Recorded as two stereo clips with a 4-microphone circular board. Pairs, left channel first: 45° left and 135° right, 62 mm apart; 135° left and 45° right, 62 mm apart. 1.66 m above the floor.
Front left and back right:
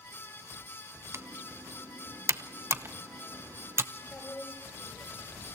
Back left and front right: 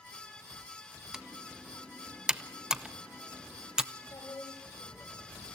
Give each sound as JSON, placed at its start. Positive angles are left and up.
{"t": 1.1, "sound": "typing on a keyboard", "azimuth_deg": -120, "distance_m": 0.8}
{"t": 4.0, "sound": "a woman speaking", "azimuth_deg": 105, "distance_m": 7.5}